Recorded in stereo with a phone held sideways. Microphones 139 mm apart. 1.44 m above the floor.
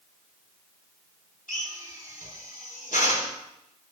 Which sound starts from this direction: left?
A drill, at 1.5 s.